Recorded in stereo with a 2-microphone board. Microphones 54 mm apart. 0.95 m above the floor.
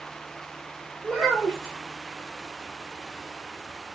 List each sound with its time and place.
1.0 s a child speaking: 5° left (ahead or behind), 2 m